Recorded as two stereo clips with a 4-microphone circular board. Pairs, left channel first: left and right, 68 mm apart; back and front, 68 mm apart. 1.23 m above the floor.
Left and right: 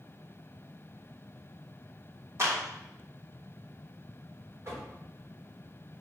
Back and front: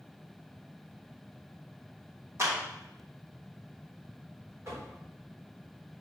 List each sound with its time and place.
2.4 s a clap: 45° right, 3 m
4.7 s knocking: 45° right, 3.5 m